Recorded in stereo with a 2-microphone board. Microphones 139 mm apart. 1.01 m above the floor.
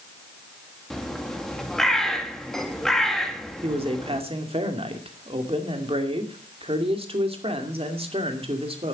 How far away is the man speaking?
About 2.5 m.